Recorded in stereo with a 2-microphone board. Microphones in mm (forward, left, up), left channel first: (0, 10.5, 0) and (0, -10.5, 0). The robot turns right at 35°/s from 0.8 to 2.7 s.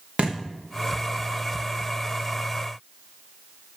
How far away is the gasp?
No gasp in this recording.